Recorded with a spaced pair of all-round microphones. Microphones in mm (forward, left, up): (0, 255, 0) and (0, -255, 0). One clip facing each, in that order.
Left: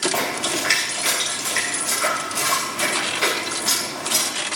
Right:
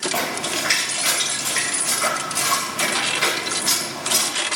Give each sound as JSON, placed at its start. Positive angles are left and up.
{"t": 0.1, "sound": "a splash", "side_deg": -30, "distance_m": 3.5}